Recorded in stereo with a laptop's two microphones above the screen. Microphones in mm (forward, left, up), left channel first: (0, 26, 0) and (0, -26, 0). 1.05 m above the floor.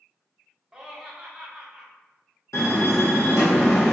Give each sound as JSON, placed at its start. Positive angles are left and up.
{"t": 0.7, "sound": "laughter", "side_deg": -10, "distance_m": 1.1}
{"t": 2.5, "sound": "a door slam", "side_deg": 75, "distance_m": 1.5}